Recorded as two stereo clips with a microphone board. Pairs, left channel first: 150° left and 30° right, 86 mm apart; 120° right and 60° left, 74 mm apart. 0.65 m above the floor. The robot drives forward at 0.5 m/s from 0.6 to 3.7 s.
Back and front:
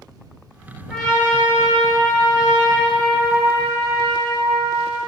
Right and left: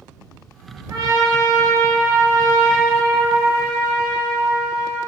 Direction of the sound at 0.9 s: 65° left.